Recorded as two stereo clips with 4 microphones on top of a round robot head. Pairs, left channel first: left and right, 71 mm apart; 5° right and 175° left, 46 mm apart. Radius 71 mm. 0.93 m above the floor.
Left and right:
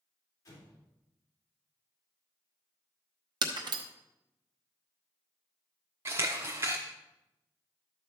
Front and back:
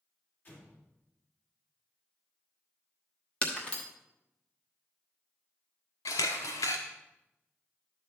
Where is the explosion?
45° left, 3.5 m.